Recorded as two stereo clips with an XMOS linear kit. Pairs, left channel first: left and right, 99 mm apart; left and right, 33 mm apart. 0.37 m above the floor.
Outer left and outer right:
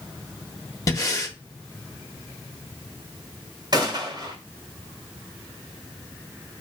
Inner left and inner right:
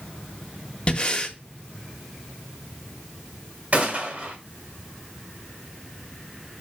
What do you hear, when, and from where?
0.9 s breathing: 35° left (ahead or behind), 0.8 m
3.7 s a gunshot: 50° right (ahead or behind), 1.4 m